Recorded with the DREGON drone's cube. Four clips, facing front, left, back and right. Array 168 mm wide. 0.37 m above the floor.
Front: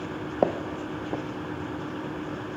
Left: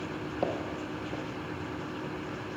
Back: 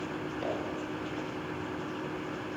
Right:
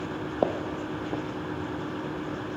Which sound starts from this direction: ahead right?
Footsteps, at 0.4 s.